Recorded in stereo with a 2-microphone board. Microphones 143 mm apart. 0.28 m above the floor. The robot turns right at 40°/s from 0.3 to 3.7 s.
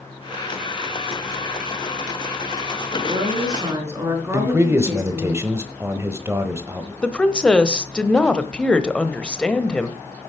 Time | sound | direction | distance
3.0 | a woman speaking | 50° right (ahead or behind) | 4.5 m
4.3 | a man speaking | 15° right (ahead or behind) | 1.0 m
7.0 | a woman speaking | 5° left (ahead or behind) | 0.9 m